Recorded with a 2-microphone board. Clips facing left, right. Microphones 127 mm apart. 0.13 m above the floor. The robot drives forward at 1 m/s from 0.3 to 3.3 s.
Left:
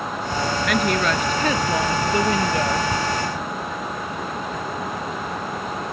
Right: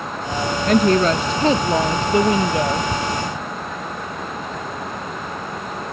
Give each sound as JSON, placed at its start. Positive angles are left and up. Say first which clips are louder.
{"t": 0.7, "sound": "a woman speaking", "louder": "right 8 dB", "side_deg": -35}